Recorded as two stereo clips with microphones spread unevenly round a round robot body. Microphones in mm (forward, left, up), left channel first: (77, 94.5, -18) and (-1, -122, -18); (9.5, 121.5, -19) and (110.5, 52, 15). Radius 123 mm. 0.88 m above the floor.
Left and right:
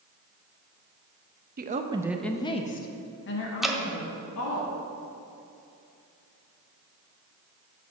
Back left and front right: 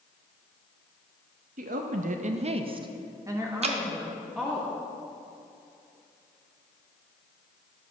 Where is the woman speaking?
65° right, 0.6 m; by 4.6 s 50° left, 1.6 m.